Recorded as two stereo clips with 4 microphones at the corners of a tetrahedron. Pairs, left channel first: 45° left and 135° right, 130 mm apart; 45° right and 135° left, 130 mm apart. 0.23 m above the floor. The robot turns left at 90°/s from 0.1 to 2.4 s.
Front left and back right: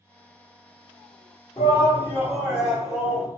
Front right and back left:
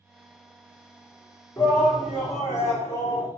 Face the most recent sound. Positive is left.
turn(degrees=-65)